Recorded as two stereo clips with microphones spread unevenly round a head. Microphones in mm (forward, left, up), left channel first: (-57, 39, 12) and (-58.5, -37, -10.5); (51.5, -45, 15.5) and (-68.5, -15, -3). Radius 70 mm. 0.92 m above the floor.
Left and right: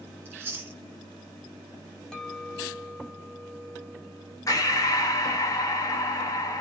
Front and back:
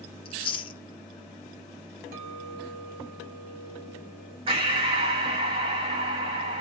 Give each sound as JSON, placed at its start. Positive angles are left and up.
{"t": 0.2, "sound": "chewing", "azimuth_deg": -15, "distance_m": 0.5}
{"t": 2.1, "sound": "a clink", "azimuth_deg": 165, "distance_m": 1.3}
{"t": 4.5, "sound": "breathing", "azimuth_deg": 135, "distance_m": 1.1}